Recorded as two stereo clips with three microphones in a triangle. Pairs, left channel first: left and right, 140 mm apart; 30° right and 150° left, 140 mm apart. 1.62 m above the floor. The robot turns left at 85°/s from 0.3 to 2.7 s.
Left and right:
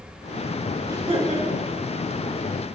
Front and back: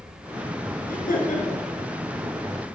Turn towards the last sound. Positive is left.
turn(degrees=-170)